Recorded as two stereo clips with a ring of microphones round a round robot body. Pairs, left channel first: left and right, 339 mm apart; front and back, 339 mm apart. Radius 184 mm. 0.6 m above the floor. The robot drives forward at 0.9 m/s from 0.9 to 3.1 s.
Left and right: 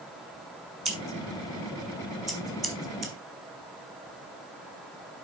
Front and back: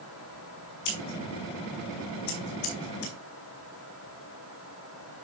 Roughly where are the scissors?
Ahead.